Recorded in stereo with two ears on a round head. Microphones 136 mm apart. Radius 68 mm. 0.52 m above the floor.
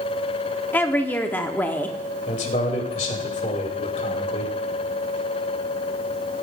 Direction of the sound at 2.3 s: 50° left (ahead or behind).